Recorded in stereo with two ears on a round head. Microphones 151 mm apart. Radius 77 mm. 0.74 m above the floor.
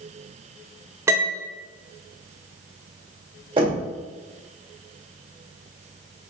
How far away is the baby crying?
No baby crying in this recording.